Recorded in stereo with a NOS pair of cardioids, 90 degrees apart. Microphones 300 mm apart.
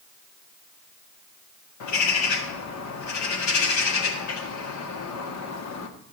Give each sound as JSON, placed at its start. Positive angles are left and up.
{"t": 1.8, "sound": "a bird", "azimuth_deg": 70, "distance_m": 1.7}